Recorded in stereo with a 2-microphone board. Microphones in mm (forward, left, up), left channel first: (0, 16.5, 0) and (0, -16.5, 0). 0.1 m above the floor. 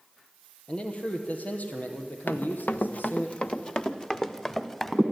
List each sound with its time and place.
0.7 s a man speaking: 30° left (ahead or behind), 3 m; by 3.3 s 70° left (ahead or behind), 4 m
2.3 s running footsteps: 75° left (ahead or behind), 1.0 m; by 5.0 s 10° left (ahead or behind), 2 m